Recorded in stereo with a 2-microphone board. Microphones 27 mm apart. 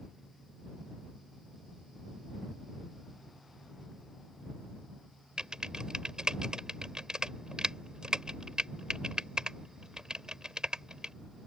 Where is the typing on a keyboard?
30° right (ahead or behind).